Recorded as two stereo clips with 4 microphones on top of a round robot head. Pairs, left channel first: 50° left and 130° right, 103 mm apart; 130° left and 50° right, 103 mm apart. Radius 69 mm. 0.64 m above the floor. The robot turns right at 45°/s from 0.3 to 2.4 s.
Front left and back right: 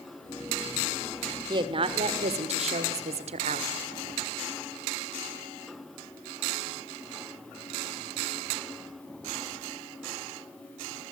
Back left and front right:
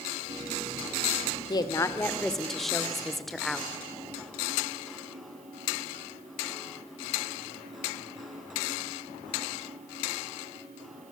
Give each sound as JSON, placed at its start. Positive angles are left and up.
{"t": 1.5, "sound": "a woman speaking", "azimuth_deg": 180, "distance_m": 1.7}